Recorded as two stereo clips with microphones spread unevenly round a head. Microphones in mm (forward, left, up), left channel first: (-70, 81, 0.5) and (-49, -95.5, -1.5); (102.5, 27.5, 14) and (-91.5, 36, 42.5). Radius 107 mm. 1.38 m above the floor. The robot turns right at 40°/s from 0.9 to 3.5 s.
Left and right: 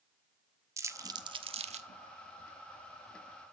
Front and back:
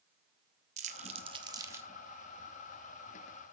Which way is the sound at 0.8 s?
150° right.